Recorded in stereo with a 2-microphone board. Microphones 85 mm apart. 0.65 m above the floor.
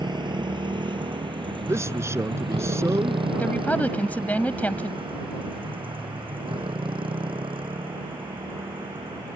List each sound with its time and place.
0.0 s a motorcycle: 65° right (ahead or behind); by 9.4 s 80° right
1.7 s a man speaking: 35° right (ahead or behind)
3.4 s a woman speaking: 20° left (ahead or behind)